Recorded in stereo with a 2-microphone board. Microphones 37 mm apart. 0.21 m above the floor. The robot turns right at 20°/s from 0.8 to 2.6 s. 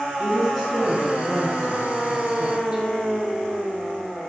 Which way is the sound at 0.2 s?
175° right.